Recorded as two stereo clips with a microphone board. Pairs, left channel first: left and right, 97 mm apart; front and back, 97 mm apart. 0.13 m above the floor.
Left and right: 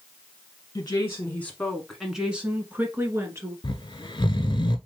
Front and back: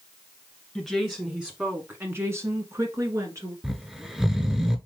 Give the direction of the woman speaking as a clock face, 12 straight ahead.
9 o'clock.